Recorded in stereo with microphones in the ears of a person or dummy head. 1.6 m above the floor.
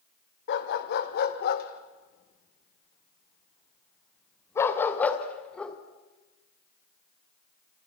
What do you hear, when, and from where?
0.5 s a dog barking: 65° left (ahead or behind), 2.5 m; by 5.8 s 5° left (ahead or behind), 2.5 m